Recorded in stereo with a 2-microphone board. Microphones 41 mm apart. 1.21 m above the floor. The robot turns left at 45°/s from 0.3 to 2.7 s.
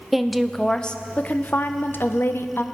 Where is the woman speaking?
Straight behind, 0.7 m; by 2.6 s 75° left, 0.7 m.